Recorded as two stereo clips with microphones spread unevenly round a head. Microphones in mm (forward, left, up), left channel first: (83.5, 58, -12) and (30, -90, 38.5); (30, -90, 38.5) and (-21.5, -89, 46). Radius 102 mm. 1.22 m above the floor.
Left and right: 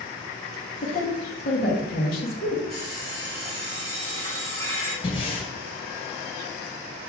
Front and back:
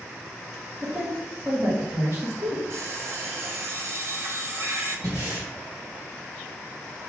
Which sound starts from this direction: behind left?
Breathing, at 5.0 s.